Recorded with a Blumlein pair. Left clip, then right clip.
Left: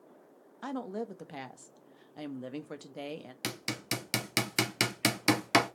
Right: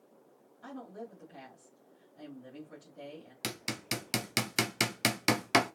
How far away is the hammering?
About 0.6 m.